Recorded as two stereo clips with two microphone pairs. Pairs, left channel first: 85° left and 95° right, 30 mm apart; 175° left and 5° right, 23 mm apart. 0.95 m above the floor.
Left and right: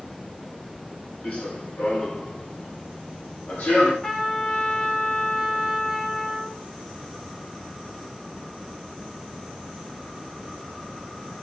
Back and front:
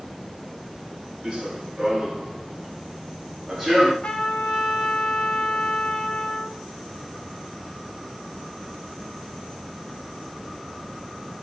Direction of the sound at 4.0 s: 140° left.